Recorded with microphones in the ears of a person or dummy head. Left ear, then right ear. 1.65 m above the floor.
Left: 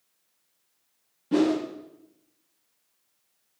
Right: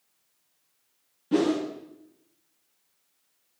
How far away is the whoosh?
About 0.8 m.